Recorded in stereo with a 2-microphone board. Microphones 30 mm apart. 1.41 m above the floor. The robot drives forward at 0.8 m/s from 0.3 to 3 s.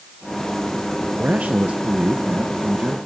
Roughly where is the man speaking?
Right.